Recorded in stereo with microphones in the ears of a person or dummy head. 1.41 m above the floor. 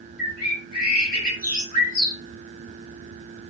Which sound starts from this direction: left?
A bird, at 0.2 s.